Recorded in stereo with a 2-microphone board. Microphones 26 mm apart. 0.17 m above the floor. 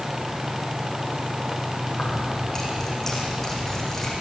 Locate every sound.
1.9 s keys jangling: 15° left (ahead or behind), 5.5 m